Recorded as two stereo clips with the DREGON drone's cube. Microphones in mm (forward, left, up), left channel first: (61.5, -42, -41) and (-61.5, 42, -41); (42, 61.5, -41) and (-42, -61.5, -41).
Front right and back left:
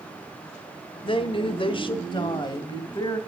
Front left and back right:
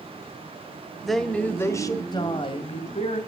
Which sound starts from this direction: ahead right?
A woman speaking, at 1.0 s.